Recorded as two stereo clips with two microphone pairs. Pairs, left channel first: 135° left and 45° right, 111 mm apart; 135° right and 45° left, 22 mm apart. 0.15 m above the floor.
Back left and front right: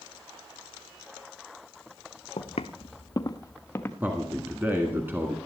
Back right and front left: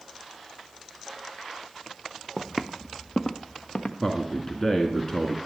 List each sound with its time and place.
2.4 s footsteps: 130° left, 0.7 m; by 3.9 s 155° right, 1.3 m
4.0 s a man speaking: 100° right, 1.5 m